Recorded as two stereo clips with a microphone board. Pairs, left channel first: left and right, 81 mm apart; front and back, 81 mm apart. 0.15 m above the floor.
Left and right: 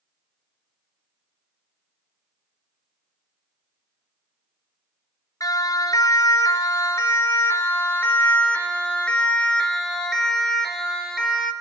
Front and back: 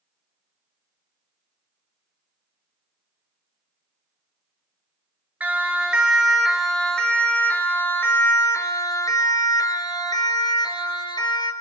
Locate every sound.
5.4 s a siren: 110° left, 3 m; by 11.5 s 5° right, 4 m